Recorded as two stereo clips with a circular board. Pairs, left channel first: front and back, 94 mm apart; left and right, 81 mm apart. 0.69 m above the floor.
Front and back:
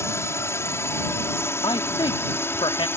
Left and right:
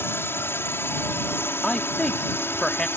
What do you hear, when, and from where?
0.0 s a drone: 45° left; by 3.0 s 50° left
1.6 s a man speaking: 10° left